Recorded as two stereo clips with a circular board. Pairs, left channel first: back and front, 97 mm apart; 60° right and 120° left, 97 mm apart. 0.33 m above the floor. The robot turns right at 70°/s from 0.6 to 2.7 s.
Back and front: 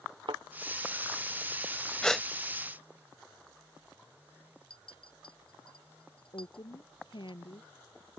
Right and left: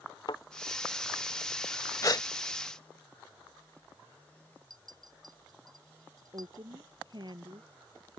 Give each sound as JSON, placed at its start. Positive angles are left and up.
{"t": 0.3, "sound": "a thud", "azimuth_deg": -25}
{"t": 2.0, "sound": "a gasp", "azimuth_deg": -100}
{"t": 4.7, "sound": "a clink", "azimuth_deg": 165}
{"t": 6.3, "sound": "a woman speaking", "azimuth_deg": 155}